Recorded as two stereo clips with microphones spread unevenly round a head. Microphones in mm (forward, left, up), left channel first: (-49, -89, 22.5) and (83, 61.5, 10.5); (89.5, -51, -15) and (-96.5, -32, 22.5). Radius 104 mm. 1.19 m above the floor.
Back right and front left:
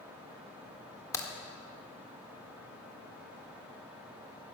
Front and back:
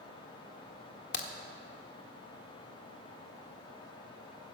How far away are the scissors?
No scissors in this recording.